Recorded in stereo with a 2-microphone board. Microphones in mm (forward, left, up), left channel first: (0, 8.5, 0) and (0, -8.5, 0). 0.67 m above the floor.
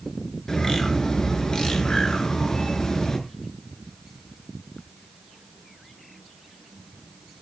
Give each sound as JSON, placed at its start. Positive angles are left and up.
{"t": 0.5, "sound": "a bird", "side_deg": 35, "distance_m": 5.0}